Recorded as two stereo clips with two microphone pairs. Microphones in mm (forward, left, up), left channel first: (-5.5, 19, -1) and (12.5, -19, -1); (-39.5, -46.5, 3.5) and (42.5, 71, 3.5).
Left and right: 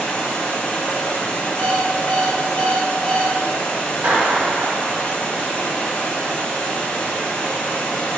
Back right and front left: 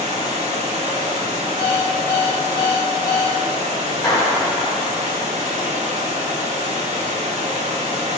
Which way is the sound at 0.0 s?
75° left.